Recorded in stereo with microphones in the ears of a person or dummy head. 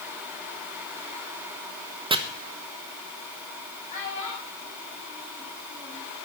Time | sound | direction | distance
2.1 | chopping | 20° right (ahead or behind) | 0.8 m
3.9 | a child speaking | 45° left (ahead or behind) | 7 m